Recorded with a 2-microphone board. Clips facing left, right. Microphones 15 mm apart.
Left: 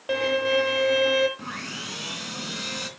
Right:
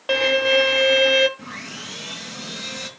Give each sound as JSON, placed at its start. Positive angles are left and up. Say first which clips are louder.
{"t": 0.1, "sound": "a violin", "louder": "right 5 dB", "side_deg": -35, "distance_m": 1.0}
{"t": 1.4, "sound": "sawing", "louder": "even", "side_deg": 10, "distance_m": 2.5}